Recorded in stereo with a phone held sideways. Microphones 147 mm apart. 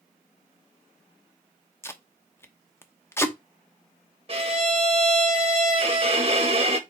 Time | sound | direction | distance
1.8 | tape being pulled | 15° left (ahead or behind) | 0.9 m
4.3 | a violin | 40° right (ahead or behind) | 1.4 m